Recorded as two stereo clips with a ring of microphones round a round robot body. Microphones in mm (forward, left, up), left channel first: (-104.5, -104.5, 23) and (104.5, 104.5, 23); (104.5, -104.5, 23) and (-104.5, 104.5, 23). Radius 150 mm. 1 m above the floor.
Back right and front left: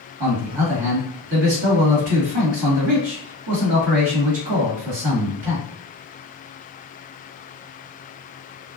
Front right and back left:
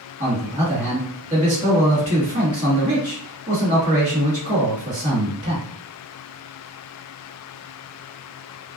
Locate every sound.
0.2 s a man speaking: 70° left, 1.7 m